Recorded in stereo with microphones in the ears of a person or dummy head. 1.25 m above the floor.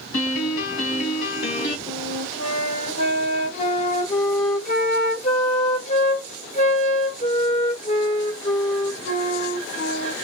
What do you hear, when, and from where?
0.1 s a piano: 50° left (ahead or behind), 1.5 m
1.9 s a flute: 35° left (ahead or behind), 1.3 m